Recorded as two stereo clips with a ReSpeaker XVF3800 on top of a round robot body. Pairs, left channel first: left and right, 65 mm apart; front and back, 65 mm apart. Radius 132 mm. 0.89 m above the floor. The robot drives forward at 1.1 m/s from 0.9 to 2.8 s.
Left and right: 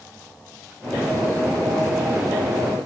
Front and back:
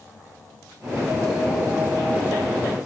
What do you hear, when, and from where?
Only background noise.